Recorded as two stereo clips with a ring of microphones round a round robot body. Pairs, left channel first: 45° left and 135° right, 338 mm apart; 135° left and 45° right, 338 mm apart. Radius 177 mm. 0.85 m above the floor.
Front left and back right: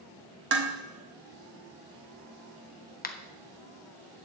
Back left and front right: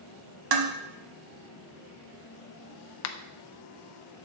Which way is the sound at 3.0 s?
105° left.